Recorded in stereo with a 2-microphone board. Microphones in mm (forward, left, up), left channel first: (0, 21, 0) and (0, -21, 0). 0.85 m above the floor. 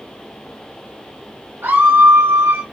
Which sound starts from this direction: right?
A scream, at 1.6 s.